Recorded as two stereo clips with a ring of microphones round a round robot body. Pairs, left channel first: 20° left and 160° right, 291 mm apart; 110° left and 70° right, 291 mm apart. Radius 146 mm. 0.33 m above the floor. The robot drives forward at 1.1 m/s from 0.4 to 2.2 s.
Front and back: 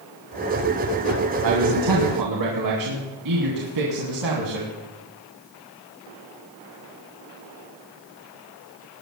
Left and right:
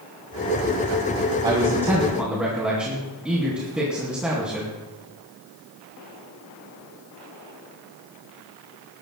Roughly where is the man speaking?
Behind right.